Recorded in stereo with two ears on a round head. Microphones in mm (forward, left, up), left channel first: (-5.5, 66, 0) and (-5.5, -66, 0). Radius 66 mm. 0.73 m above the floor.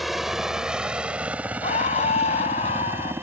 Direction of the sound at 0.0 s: Centre (ahead or behind).